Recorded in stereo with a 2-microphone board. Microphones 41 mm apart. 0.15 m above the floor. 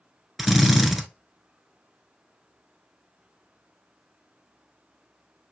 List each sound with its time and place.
0.4 s a drill: 5° right (ahead or behind), 0.8 m